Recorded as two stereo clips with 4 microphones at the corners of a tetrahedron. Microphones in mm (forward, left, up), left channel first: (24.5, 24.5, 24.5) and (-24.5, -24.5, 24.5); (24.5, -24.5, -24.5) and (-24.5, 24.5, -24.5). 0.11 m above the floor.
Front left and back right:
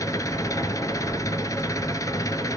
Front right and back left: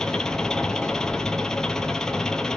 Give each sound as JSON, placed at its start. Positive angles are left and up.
{"t": 0.0, "sound": "an engine running", "azimuth_deg": 35, "distance_m": 0.9}